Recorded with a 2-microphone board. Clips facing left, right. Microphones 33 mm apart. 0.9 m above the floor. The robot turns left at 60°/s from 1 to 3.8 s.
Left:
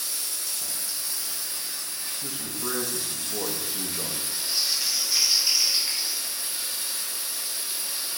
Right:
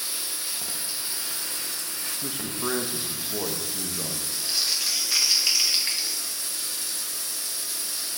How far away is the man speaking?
About 0.8 m.